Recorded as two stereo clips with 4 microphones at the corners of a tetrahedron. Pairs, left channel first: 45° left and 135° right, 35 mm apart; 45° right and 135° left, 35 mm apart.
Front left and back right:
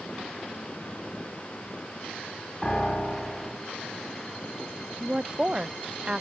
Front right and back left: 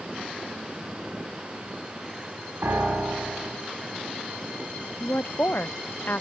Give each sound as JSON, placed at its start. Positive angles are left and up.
{"t": 2.6, "sound": "a piano", "azimuth_deg": 115, "distance_m": 6.5}
{"t": 5.0, "sound": "a woman speaking", "azimuth_deg": -70, "distance_m": 0.6}